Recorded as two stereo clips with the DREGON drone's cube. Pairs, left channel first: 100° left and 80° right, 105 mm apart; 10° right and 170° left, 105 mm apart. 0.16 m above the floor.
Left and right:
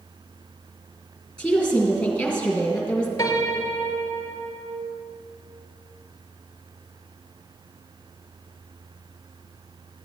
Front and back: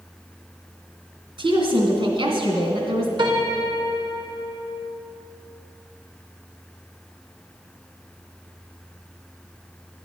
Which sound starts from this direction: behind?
A woman speaking, at 1.4 s.